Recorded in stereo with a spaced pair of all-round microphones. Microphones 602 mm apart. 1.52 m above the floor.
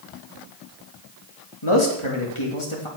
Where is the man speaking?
50° left (ahead or behind), 3 m.